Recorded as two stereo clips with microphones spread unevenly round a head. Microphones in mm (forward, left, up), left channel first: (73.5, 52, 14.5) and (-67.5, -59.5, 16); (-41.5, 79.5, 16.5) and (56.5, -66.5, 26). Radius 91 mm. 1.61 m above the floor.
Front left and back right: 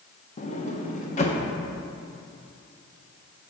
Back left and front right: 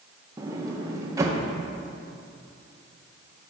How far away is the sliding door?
About 0.8 m.